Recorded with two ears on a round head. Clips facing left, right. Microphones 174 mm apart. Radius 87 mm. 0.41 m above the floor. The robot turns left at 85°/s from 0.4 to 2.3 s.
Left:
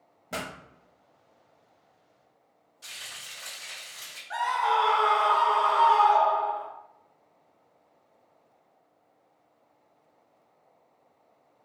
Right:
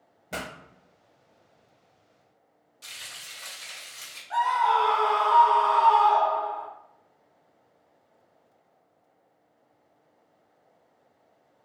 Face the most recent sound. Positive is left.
turn(degrees=20)  # may be behind; listen again after turning